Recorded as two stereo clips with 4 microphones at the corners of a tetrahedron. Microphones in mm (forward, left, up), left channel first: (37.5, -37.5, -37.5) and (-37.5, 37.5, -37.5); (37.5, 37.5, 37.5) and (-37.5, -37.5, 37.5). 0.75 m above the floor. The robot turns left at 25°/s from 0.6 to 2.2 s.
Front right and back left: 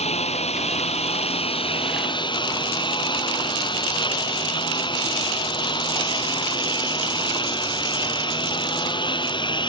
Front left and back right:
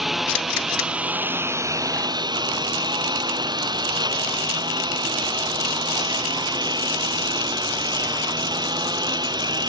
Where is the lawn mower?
45° right; by 9.7 s 85° right.